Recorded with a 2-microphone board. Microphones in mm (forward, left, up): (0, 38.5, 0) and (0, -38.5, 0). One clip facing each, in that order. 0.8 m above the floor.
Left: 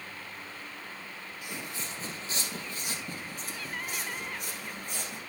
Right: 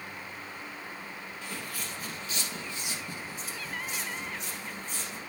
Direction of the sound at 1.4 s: 15° left (ahead or behind).